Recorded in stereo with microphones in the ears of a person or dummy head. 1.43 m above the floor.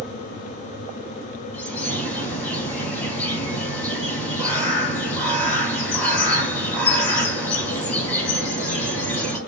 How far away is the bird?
About 4 m.